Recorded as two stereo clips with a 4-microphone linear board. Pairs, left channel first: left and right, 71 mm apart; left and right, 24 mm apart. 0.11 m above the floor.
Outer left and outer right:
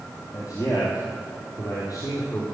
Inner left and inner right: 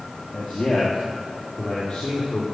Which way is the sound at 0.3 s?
60° left (ahead or behind).